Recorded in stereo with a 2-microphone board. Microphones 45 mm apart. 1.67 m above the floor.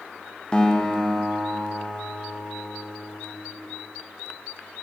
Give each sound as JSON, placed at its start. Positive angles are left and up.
{"t": 0.5, "sound": "a guitar", "side_deg": 20, "distance_m": 0.8}